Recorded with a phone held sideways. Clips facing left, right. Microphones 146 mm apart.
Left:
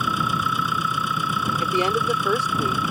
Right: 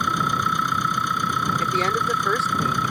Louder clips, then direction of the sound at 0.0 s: Even; 5° left (ahead or behind).